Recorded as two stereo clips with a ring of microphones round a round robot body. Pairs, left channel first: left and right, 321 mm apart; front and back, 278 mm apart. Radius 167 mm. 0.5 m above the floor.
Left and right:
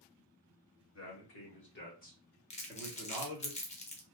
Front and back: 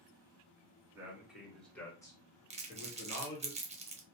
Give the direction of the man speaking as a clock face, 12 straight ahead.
9 o'clock.